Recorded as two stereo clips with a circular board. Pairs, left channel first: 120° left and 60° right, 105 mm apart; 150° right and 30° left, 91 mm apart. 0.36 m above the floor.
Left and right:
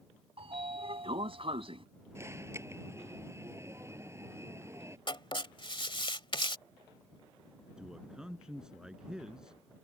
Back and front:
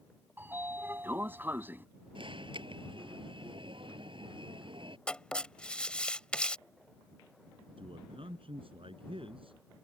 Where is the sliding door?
35° right.